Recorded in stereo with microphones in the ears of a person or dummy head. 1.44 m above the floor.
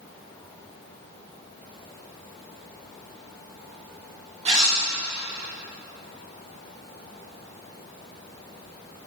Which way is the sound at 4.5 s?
30° right (ahead or behind).